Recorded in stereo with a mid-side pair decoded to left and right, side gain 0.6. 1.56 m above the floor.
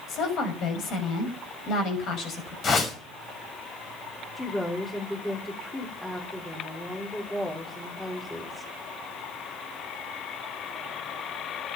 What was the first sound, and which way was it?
A woman speaking, 55° left.